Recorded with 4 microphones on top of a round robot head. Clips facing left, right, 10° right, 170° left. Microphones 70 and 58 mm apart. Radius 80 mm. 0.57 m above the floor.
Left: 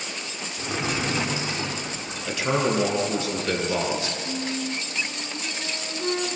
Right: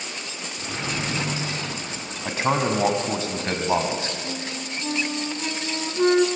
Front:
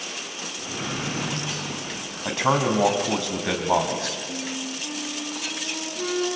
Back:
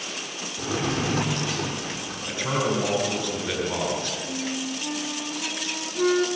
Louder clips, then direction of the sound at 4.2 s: Left 3 dB, back 2 dB; 120° right.